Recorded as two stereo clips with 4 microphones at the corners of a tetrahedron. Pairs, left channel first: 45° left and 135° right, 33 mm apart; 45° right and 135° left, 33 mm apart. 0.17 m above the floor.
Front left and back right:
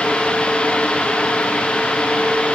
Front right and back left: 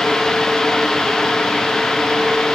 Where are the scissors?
No scissors in this recording.